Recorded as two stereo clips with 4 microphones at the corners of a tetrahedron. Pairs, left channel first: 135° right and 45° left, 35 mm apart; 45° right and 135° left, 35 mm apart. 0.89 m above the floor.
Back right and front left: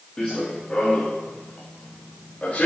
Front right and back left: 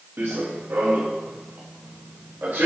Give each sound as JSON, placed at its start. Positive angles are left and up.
{"t": 0.2, "sound": "running footsteps", "azimuth_deg": 150, "distance_m": 5.0}